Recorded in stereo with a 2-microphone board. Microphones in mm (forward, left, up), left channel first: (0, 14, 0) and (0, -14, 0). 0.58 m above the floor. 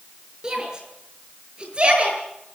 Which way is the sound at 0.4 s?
25° right (ahead or behind).